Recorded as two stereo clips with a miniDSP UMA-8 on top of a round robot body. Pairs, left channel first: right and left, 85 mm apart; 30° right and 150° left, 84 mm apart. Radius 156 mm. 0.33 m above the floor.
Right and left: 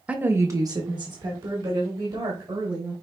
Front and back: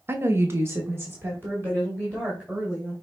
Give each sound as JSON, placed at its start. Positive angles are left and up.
{"t": 0.1, "sound": "a woman speaking", "azimuth_deg": 145, "distance_m": 0.9}